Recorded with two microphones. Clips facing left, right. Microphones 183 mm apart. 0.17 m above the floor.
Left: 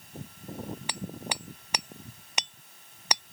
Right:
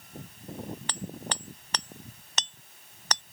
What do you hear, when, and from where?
0.9 s hammering: 10° left (ahead or behind)